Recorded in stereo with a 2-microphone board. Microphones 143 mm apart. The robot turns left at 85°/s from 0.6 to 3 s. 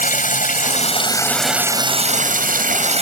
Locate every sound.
0.0 s running water: 75° left; by 3.0 s 130° right